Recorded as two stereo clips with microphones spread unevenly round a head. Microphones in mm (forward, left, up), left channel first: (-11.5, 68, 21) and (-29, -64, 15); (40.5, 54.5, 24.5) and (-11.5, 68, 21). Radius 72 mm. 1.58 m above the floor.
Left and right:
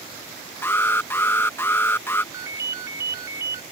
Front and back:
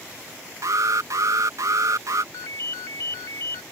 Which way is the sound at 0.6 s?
155° left.